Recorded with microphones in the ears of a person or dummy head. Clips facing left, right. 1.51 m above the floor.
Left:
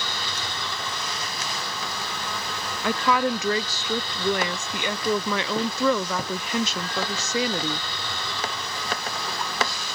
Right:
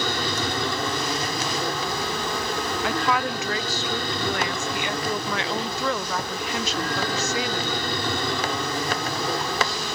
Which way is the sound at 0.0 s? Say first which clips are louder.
Right 8 dB; 45° right (ahead or behind).